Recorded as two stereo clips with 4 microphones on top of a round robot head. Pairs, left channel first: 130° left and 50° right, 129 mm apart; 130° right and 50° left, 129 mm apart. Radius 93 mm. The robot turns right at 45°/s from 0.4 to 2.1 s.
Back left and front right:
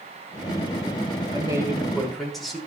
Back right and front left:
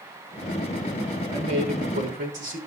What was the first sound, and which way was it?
A man speaking, 5° left.